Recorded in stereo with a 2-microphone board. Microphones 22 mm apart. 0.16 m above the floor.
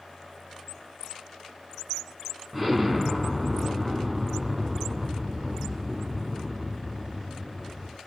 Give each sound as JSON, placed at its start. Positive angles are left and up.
{"t": 2.5, "sound": "an explosion", "side_deg": -10, "distance_m": 0.9}